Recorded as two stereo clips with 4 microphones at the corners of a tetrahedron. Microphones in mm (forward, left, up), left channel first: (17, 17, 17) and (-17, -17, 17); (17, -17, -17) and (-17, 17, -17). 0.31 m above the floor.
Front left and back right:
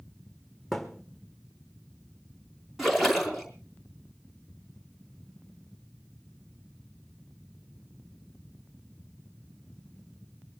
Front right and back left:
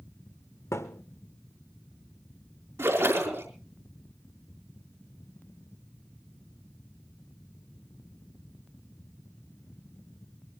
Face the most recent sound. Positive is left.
turn(degrees=140)